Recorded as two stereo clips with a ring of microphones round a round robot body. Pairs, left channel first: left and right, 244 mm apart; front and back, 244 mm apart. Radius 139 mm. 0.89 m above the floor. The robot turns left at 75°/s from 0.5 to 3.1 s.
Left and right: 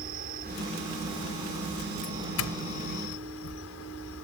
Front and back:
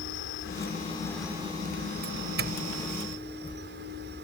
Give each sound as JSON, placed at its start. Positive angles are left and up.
{"t": 0.0, "sound": "an insect", "azimuth_deg": -35}
{"t": 2.0, "sound": "a doorbell", "azimuth_deg": 155}